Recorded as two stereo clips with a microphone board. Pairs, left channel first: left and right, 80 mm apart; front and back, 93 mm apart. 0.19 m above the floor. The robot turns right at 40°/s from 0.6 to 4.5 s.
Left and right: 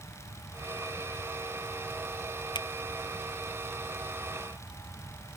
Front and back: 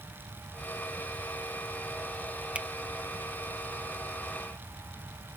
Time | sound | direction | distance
2.5 | a finger snap | 105° left | ?